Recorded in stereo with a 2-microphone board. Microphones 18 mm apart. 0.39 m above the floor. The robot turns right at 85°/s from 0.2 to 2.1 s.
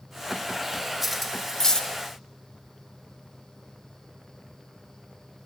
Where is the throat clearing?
No throat clearing in this recording.